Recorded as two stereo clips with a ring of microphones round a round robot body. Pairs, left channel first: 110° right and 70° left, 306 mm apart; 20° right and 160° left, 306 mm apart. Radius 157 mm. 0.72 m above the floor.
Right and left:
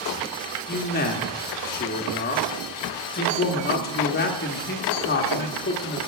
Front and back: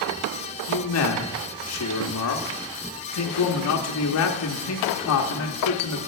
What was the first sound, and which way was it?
A man speaking, 55° right.